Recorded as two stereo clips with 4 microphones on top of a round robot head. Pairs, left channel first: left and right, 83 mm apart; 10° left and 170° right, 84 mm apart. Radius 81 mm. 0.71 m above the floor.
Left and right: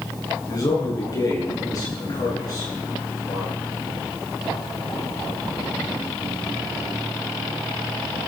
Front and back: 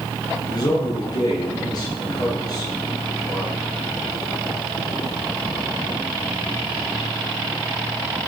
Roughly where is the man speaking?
Ahead left.